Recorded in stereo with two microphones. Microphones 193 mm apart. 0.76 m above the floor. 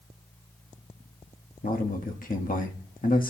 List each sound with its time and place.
1.6 s a man speaking: 45° left (ahead or behind), 1.2 m